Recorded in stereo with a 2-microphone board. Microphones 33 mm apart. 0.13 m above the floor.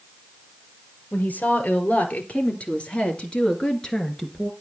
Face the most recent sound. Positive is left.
turn(degrees=5)  # may be behind; listen again after turning